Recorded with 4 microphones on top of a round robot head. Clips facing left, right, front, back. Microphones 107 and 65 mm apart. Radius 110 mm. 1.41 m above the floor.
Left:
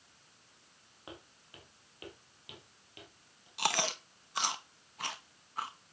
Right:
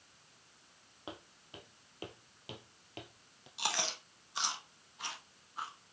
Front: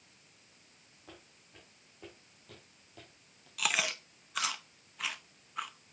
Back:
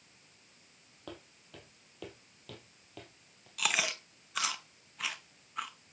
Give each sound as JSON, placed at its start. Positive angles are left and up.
{"t": 1.1, "sound": "footsteps", "azimuth_deg": -155, "distance_m": 3.0}
{"t": 3.6, "sound": "chewing", "azimuth_deg": 90, "distance_m": 0.7}